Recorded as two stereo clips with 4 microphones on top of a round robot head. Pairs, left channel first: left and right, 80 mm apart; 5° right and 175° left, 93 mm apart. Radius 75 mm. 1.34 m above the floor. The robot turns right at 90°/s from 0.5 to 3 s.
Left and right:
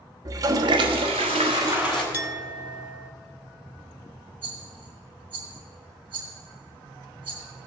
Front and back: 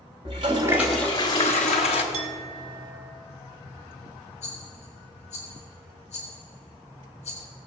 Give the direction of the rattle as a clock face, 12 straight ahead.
12 o'clock.